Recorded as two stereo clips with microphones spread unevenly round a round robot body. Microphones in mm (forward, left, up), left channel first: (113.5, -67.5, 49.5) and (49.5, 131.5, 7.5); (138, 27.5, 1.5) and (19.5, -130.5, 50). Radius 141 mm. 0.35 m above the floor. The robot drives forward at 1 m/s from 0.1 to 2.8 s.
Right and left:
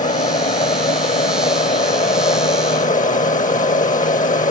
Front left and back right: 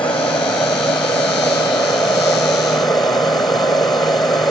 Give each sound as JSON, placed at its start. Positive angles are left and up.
{"t": 0.0, "sound": "an aircraft", "azimuth_deg": -20}